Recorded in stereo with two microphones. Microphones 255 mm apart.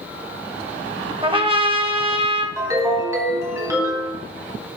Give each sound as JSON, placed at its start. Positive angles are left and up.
{"t": 1.2, "sound": "a trumpet", "side_deg": -20, "distance_m": 0.6}
{"t": 2.6, "sound": "a ringtone", "side_deg": -10, "distance_m": 1.8}